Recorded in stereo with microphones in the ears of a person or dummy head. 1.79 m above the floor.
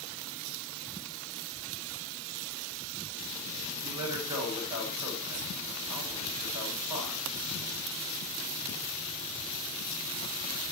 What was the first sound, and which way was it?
A man speaking, 25° right (ahead or behind).